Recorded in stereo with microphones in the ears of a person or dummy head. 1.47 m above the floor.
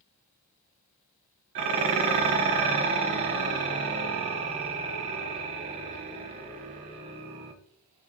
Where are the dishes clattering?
30° right (ahead or behind), 0.6 m.